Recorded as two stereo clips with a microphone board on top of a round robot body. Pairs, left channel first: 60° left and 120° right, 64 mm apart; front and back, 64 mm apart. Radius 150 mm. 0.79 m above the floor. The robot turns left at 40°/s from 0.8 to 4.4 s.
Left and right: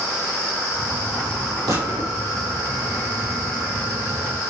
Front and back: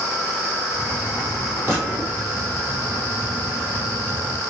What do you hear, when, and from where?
1.7 s a gunshot: 125° right, 6 m; by 2.1 s 145° right, 6 m